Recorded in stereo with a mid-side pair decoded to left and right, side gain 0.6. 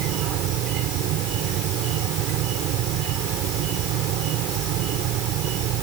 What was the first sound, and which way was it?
An insect, 65° right.